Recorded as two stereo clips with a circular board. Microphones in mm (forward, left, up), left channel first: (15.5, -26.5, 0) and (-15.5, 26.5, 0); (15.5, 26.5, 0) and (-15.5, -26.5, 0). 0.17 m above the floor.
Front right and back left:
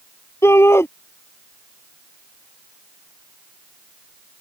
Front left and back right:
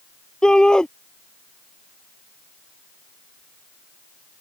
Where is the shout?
20° right.